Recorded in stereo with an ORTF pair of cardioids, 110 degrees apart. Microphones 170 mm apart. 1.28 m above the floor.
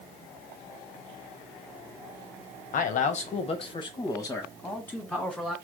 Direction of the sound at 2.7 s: 55° left.